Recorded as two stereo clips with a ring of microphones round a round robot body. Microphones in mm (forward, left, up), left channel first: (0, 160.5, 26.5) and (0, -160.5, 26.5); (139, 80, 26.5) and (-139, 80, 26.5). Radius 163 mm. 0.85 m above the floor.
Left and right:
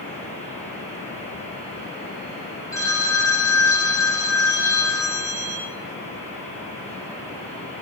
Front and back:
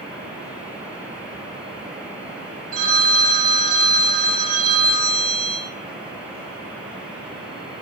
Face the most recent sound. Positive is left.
turn(degrees=170)